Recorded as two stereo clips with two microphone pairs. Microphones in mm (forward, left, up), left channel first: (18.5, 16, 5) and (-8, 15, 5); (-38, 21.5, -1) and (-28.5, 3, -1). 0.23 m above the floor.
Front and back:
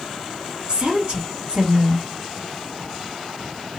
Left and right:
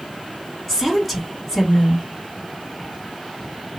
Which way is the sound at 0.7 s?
145° right.